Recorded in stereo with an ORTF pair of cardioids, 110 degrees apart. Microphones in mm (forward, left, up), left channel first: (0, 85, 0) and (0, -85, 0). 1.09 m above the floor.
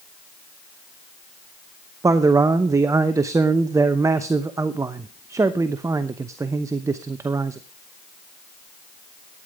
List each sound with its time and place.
2.0 s a man speaking: 20° right, 0.8 m